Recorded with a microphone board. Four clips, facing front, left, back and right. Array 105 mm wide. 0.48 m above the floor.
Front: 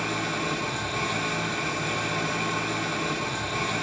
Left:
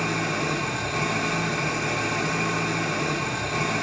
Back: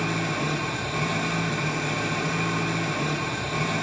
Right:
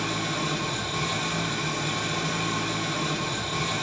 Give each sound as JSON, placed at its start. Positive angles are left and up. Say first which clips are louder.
{"t": 0.0, "sound": "an engine running", "louder": "left 3 dB, back 2 dB", "azimuth_deg": 100, "distance_m": 0.9}